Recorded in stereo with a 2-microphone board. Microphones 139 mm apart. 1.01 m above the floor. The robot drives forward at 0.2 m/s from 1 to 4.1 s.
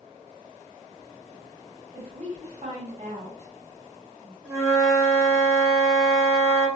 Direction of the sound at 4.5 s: 20° right (ahead or behind).